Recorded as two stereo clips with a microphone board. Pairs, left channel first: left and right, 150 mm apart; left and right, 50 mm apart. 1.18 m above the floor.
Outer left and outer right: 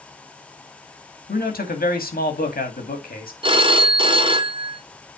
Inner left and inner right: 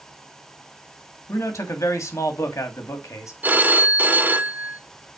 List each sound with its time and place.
1.3 s a man speaking: 85° left, 2 m
3.4 s a phone ringing: 35° right (ahead or behind), 1.2 m